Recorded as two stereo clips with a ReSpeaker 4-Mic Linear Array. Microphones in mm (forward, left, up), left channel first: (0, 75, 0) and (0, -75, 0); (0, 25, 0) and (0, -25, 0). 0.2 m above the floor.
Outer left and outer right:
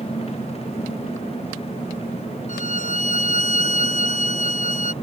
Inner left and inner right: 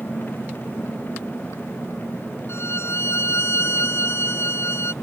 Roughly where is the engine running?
Left.